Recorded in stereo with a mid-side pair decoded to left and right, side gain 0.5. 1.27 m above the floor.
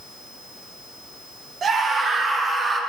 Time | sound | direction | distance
1.6 | a scream | 50° right | 3 m